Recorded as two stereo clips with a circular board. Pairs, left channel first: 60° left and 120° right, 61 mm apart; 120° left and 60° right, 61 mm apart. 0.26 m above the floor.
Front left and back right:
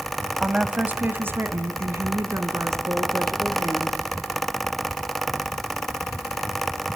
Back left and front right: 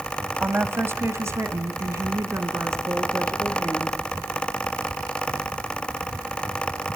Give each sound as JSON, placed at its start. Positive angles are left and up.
{"t": 0.4, "sound": "a woman speaking", "azimuth_deg": -55, "distance_m": 1.0}